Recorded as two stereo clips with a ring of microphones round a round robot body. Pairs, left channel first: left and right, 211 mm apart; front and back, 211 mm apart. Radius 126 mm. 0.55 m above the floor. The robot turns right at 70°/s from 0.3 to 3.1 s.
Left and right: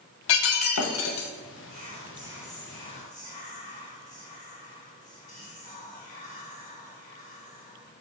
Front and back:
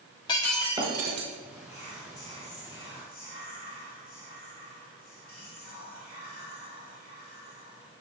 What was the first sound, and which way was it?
Breaking glass, 70° left.